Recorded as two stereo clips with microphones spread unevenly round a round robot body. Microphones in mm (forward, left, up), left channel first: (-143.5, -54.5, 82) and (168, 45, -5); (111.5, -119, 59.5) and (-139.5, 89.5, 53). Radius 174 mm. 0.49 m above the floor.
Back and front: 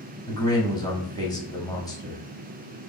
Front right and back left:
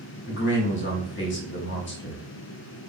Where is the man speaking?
70° right, 0.9 m.